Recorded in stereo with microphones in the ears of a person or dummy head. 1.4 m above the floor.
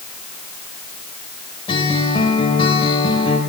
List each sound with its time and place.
1.7 s a guitar: 30° left (ahead or behind), 3 m